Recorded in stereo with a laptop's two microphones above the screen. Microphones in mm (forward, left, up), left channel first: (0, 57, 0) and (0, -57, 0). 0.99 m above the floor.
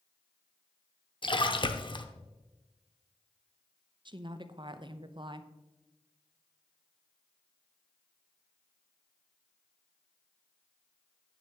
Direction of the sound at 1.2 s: 45° left (ahead or behind).